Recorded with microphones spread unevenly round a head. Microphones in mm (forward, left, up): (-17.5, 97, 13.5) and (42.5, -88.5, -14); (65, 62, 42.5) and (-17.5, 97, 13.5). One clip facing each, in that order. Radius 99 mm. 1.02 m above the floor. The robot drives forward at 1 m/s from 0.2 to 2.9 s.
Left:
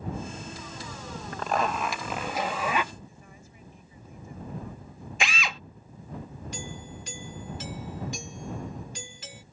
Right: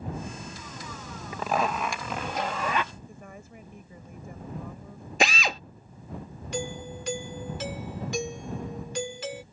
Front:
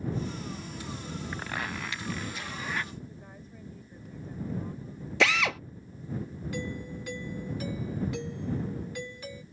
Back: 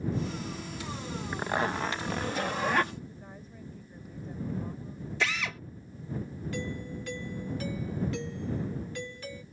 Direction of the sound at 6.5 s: 110° right.